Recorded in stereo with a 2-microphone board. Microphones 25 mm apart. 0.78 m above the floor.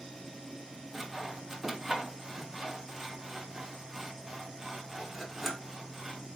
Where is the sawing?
10° right (ahead or behind), 0.6 m.